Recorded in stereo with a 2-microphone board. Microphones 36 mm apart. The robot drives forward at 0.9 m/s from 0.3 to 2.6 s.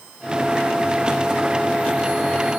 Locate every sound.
Only background noise.